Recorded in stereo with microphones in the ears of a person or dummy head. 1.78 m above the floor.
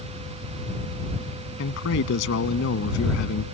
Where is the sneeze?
I don't hear a sneeze.